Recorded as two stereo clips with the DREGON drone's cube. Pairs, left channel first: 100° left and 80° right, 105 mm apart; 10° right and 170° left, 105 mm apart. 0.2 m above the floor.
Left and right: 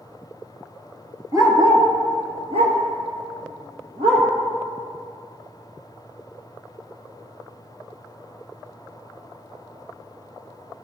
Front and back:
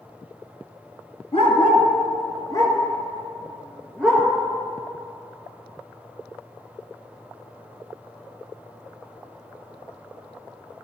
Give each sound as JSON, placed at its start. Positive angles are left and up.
{"t": 1.3, "sound": "a dog barking", "azimuth_deg": -25, "distance_m": 1.5}